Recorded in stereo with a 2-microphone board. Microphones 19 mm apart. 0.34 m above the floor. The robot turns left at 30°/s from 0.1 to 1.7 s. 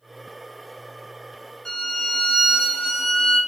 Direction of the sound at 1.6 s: 45° left (ahead or behind).